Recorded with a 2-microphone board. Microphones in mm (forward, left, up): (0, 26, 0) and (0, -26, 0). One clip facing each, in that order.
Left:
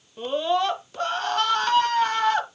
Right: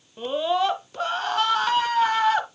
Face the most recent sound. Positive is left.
turn(degrees=-5)  # may be behind; listen again after turning